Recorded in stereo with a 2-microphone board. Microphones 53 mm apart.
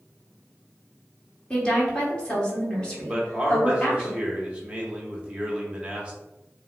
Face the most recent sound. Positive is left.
turn(degrees=-20)  # may be behind; listen again after turning